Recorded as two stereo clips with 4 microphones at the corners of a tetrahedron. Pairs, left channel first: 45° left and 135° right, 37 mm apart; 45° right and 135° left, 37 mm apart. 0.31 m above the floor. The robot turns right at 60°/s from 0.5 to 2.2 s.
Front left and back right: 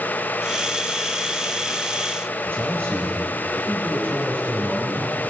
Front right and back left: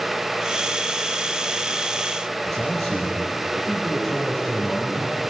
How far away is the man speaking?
About 7.5 m.